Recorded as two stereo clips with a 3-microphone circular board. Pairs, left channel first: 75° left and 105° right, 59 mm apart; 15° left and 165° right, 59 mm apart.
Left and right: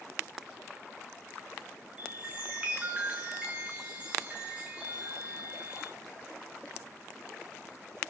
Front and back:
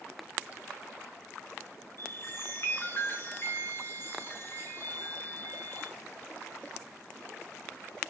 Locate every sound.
2.0 s a chime: 35° right, 4.5 m